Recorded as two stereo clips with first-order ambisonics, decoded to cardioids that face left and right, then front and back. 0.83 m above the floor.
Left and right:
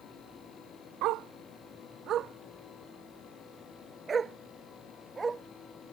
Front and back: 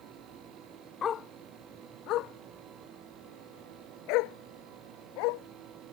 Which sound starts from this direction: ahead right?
A dog barking, at 1.0 s.